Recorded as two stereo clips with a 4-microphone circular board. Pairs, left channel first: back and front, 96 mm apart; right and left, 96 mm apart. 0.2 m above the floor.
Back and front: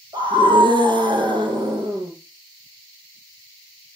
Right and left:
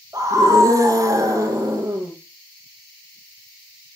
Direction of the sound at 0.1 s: 40° left.